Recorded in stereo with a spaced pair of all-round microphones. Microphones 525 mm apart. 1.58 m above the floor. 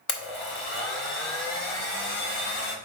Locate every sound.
0.1 s a blender: 55° left (ahead or behind), 1.0 m